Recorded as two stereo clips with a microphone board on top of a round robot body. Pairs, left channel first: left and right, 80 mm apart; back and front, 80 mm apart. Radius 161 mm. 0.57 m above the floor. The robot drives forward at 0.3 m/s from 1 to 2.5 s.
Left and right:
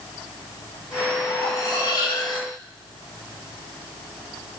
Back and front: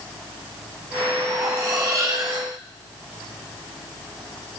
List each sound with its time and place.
1.3 s cutlery clinking: 50° left, 2 m; by 2.5 s 60° left, 1.8 m